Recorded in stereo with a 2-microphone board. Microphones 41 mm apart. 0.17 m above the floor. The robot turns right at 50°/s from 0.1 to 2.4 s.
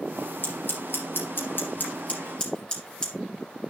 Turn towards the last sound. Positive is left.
turn(degrees=25)  # may be behind; listen again after turning